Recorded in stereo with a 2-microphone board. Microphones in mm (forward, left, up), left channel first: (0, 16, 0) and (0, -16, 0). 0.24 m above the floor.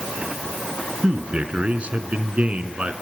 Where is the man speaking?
45° right (ahead or behind), 2 m.